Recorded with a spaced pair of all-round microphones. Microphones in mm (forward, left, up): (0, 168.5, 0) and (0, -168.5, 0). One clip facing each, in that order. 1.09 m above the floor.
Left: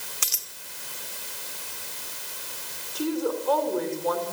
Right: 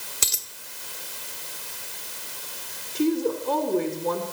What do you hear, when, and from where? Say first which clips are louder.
0.2 s a dropped coin: right 4 dB; 50° right (ahead or behind), 1.8 m
3.0 s a woman speaking: right 4 dB; 35° right (ahead or behind), 4 m